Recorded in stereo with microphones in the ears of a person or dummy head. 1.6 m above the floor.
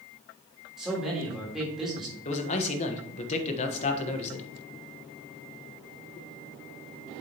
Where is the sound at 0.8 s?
5° left (ahead or behind), 4 m.